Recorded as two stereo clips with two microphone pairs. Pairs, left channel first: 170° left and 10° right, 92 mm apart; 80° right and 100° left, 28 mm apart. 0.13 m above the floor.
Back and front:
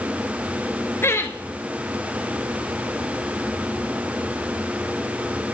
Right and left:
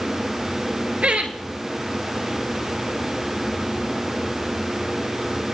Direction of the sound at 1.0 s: 120° left.